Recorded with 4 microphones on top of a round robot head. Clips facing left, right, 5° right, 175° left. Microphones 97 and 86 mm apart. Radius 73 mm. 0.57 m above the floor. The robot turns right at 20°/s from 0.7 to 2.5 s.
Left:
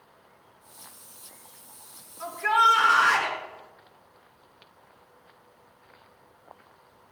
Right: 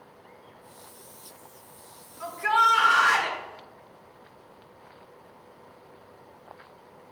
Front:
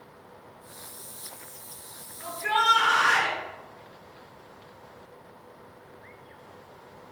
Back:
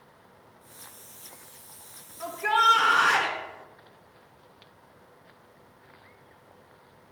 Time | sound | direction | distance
2.2 | a shout | 170° left | 1.7 m